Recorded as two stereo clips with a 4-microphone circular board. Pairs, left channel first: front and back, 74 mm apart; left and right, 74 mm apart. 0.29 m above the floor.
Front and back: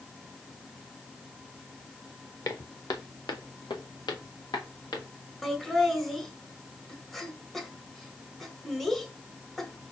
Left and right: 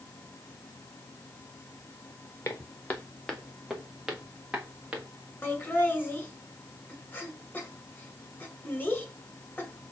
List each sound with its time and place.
2.5 s footsteps: 35° left, 1.3 m; by 5.1 s 20° right, 2.5 m
5.4 s laughter: 80° left, 1.7 m